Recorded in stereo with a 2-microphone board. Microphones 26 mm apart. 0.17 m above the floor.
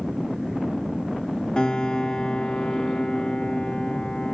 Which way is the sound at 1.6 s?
35° left (ahead or behind).